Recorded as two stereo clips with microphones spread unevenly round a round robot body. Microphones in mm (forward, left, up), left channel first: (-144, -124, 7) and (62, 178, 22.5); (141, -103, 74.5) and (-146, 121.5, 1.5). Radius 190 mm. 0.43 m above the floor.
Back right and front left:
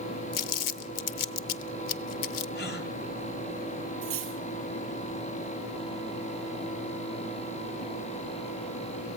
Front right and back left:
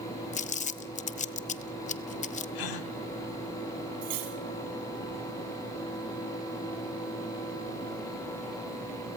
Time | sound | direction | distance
0.3 | crumpling | 115° right | 0.9 m
2.5 | a gasp | 65° right | 2 m
4.0 | cutlery clinking | 110° left | 8 m